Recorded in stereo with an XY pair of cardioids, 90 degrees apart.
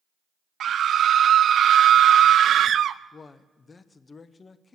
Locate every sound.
0.6 s a scream: 65° right, 0.7 m
3.1 s a man speaking: 40° left, 1.0 m